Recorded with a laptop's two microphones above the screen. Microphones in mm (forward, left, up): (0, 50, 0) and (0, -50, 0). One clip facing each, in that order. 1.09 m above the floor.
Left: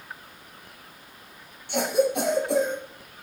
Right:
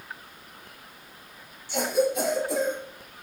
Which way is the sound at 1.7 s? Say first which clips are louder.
Left 1 dB; 60° left (ahead or behind).